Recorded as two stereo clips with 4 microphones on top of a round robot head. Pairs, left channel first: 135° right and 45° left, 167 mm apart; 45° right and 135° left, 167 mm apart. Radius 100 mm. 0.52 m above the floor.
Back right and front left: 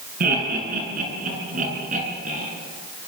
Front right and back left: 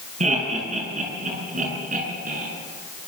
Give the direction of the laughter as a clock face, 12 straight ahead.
9 o'clock.